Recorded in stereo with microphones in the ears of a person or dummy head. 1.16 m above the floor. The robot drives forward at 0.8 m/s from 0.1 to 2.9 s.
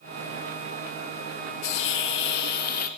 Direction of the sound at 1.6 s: 60° left (ahead or behind).